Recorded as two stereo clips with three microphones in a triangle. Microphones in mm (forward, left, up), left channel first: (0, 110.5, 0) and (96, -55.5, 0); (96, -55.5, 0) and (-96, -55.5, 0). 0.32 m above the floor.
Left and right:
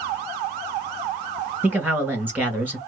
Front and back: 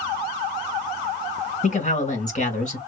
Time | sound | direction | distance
1.6 | a man speaking | 15° left | 1.8 m